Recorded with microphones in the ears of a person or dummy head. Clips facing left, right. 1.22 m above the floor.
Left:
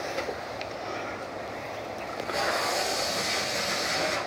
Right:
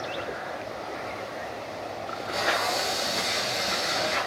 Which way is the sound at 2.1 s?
Centre (ahead or behind).